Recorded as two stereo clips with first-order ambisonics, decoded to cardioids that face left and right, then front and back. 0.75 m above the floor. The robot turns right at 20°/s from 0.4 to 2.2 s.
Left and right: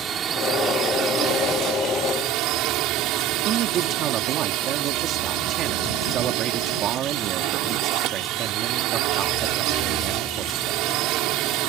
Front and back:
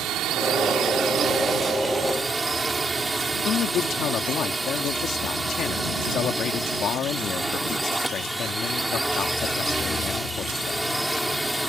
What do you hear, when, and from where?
0.0 s a drone: 145° right; by 11.7 s 90° right
3.5 s a man speaking: 45° right